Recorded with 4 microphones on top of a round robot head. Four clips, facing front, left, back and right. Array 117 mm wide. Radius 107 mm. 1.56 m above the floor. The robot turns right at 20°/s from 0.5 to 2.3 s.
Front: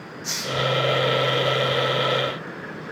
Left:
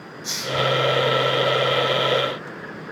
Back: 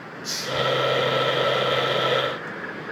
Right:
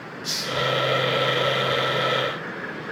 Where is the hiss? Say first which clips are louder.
Left 3 dB, even; 35° left, 3 m.